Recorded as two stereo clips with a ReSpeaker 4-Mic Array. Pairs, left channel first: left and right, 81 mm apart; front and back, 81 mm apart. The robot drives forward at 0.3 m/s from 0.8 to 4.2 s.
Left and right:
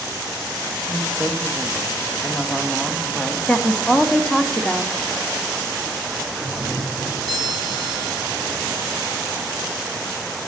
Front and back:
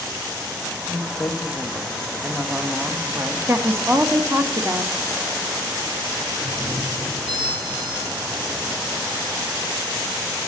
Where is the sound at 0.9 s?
5° left, 0.7 m; by 3.4 s 175° left, 0.7 m.